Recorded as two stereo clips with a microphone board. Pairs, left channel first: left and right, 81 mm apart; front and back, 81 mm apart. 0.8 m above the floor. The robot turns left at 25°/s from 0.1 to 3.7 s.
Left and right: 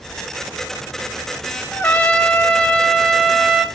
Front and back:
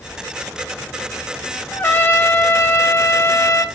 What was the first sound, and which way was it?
A trumpet, 45° left.